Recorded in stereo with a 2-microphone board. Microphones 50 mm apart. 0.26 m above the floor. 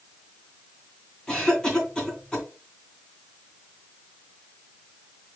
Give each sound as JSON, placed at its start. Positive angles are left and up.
{"t": 1.3, "sound": "a cough", "side_deg": 15, "distance_m": 3.0}